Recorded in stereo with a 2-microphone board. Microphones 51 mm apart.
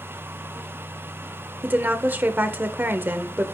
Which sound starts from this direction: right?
A woman speaking, at 1.6 s.